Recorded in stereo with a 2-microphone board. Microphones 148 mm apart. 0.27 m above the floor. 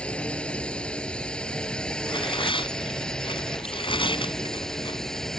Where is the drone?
5° left (ahead or behind); by 5.4 s centre (ahead or behind).